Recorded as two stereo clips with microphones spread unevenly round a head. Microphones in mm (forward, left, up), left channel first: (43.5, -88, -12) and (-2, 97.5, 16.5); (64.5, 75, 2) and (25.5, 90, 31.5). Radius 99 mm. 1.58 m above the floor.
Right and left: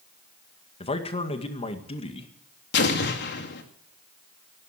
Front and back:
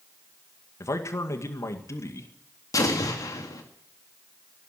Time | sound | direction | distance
0.8 | a man speaking | 15° right | 2.0 m
2.7 | an explosion | 40° right | 2 m